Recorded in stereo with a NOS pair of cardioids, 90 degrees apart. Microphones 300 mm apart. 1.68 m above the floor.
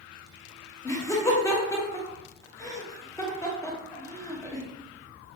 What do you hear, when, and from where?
0.8 s laughter: 10° left, 1.3 m